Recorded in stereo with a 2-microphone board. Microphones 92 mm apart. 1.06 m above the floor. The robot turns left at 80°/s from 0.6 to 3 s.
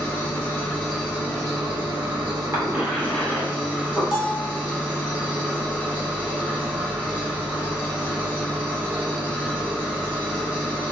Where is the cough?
30° right (ahead or behind), 1.6 m; by 4.0 s 5° left (ahead or behind), 1.6 m.